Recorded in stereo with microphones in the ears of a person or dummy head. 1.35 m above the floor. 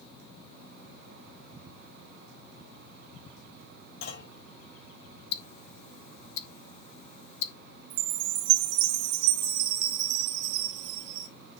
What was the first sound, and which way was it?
A clunk, 75° left (ahead or behind).